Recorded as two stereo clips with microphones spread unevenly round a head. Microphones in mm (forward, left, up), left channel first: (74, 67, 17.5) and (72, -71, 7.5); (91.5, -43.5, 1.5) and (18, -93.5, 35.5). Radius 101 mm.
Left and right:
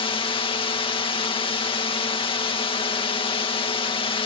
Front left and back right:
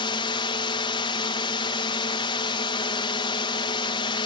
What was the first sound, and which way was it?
A drone, 40° left.